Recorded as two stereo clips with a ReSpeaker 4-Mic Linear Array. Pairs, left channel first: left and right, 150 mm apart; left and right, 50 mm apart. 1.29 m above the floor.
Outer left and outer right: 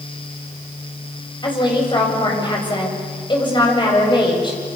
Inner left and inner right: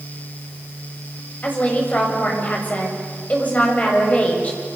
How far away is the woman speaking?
About 7.5 m.